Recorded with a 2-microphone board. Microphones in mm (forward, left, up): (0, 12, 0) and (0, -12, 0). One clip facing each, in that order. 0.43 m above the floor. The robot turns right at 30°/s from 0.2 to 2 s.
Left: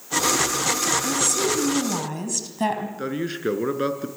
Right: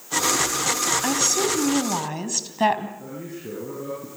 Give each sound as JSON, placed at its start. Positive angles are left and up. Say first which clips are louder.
{"t": 1.0, "sound": "a woman speaking", "louder": "right 1 dB", "side_deg": -45, "distance_m": 3.5}
{"t": 3.0, "sound": "a man speaking", "louder": "left 9 dB", "side_deg": 65, "distance_m": 5.0}